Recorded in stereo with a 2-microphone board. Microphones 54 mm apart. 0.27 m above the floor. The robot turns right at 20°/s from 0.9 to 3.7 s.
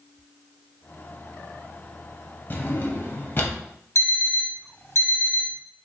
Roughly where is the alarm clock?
Left.